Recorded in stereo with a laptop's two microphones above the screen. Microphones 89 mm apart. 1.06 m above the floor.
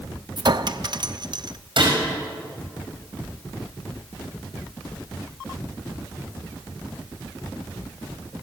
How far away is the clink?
About 0.6 m.